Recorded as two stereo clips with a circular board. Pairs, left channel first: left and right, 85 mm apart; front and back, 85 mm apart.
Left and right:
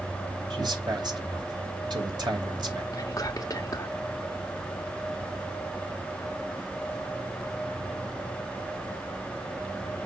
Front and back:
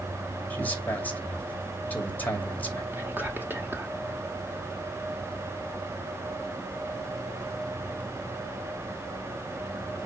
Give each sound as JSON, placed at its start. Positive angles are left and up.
{"t": 0.5, "sound": "a man speaking", "azimuth_deg": -65, "distance_m": 2.5}
{"t": 2.9, "sound": "whispering", "azimuth_deg": 120, "distance_m": 1.0}